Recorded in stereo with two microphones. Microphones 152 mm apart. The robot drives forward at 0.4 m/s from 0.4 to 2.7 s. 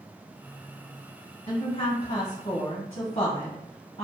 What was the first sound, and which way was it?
A woman speaking, 35° left (ahead or behind).